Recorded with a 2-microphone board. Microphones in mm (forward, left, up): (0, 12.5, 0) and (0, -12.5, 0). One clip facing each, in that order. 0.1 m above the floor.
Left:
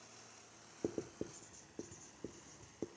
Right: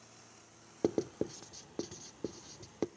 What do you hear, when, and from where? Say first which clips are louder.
0.8 s writing: right 9 dB; 70° right (ahead or behind), 0.5 m